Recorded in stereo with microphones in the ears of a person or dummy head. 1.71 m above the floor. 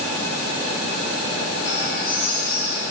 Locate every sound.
1.6 s a bird: 65° left (ahead or behind), 6.5 m